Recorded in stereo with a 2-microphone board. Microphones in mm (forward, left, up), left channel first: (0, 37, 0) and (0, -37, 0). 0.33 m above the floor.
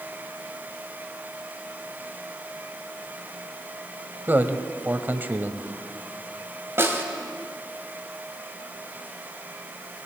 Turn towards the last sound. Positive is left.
turn(degrees=-35)  # may be behind; listen again after turning